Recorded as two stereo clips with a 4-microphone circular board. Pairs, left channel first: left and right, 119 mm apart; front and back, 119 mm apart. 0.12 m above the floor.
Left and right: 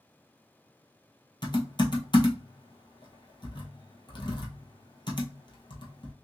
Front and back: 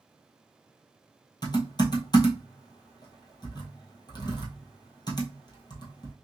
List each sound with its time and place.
1.4 s typing on a keyboard: 45° left, 1.2 m